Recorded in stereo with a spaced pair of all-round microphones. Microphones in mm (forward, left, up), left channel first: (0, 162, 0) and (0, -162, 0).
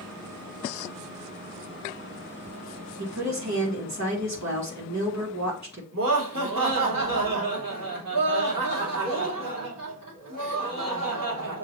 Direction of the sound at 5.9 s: 85° right.